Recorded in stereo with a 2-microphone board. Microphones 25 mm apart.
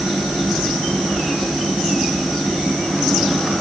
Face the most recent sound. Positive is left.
No sound to turn to.